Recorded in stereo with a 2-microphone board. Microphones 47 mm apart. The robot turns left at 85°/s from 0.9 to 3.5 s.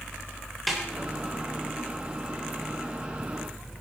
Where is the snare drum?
Centre (ahead or behind), 3 m.